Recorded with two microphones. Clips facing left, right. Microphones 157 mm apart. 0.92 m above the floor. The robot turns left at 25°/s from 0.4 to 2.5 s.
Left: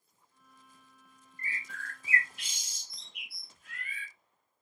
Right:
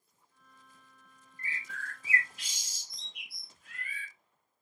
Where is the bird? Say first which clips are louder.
Even; 50° left (ahead or behind), 1.1 m; by 4.1 s 65° left (ahead or behind), 1.1 m.